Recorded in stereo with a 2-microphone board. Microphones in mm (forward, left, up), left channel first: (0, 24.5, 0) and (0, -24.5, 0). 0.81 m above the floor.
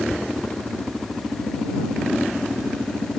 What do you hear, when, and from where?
0.1 s tapping: 85° left